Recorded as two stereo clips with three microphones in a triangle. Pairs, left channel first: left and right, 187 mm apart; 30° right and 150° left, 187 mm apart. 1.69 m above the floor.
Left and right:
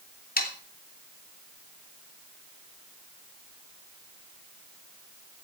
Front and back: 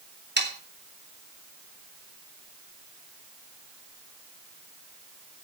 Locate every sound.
0.4 s sawing: 125° left, 3 m